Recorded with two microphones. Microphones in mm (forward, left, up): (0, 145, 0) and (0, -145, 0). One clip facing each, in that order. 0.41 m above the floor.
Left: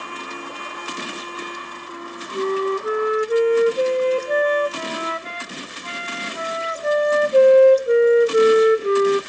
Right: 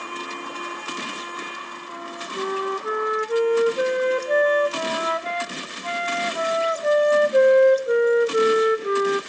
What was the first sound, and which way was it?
A flute, 30° left (ahead or behind).